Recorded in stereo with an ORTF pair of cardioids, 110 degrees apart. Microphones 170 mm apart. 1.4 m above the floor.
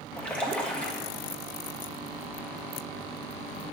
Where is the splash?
5° left, 1.4 m.